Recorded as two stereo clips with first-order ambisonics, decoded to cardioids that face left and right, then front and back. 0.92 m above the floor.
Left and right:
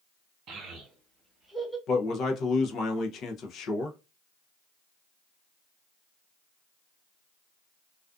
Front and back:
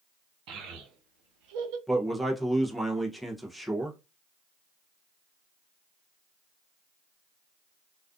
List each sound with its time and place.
0.5 s a child speaking: 150° right, 1.2 m; by 1.8 s 170° left, 0.7 m
1.9 s a man speaking: 90° left, 0.5 m